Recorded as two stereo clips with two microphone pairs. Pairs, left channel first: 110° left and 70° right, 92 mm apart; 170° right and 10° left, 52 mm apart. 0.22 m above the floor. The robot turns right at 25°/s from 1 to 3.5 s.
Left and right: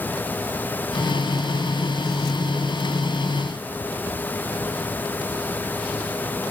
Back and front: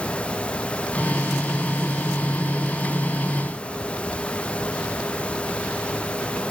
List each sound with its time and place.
Only background noise.